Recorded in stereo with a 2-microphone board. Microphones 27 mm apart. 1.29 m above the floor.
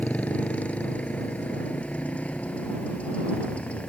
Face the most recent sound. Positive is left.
turn(degrees=55)  # may be behind; listen again after turning